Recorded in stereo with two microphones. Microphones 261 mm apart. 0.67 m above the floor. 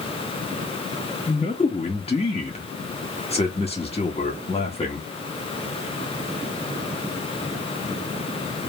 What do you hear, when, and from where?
1.3 s a man speaking: 25° left (ahead or behind), 0.9 m